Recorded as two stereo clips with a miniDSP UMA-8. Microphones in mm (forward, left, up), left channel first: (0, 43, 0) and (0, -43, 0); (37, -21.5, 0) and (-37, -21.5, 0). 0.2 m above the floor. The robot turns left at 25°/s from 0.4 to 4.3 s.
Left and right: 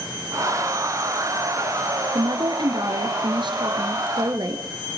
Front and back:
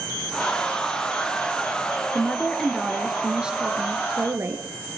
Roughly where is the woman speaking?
Right.